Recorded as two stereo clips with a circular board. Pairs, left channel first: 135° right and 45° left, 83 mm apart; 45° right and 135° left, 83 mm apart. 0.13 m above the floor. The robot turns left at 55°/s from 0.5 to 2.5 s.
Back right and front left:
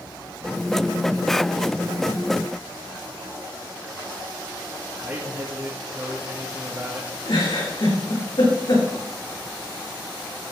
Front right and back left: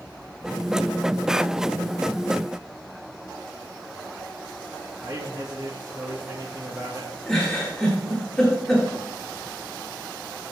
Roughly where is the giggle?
Behind right.